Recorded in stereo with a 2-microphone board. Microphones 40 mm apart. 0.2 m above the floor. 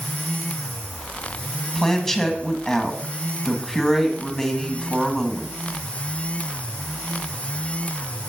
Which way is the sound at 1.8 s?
10° left (ahead or behind).